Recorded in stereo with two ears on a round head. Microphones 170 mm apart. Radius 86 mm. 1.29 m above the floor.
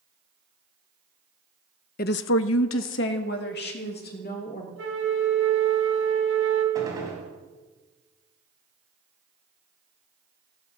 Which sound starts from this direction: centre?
A gunshot, at 6.8 s.